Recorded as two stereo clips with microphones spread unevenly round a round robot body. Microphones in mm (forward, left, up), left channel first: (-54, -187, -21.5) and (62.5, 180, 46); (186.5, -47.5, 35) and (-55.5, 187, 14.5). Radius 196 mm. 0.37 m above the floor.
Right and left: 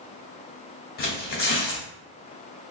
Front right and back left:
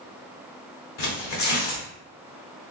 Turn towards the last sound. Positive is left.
turn(degrees=-60)